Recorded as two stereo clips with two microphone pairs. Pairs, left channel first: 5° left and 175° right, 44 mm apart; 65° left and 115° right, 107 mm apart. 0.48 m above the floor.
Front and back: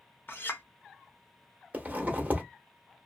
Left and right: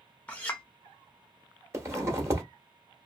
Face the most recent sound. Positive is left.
turn(degrees=-160)